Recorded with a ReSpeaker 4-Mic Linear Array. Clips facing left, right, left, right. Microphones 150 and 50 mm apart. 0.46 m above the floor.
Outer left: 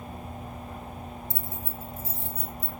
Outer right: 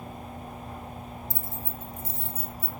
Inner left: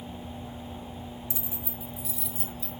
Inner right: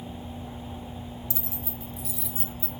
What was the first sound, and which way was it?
Keys jangling, 25° left (ahead or behind).